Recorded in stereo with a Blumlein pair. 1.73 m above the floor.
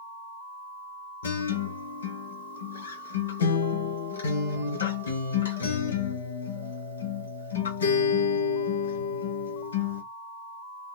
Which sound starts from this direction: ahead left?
A guitar, at 1.2 s.